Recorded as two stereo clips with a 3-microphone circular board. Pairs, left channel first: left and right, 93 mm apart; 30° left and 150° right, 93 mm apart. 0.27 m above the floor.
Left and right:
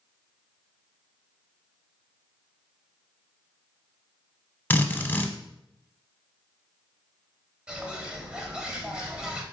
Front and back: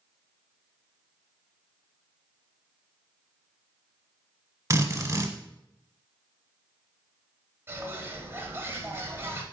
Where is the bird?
160° right, 0.8 m.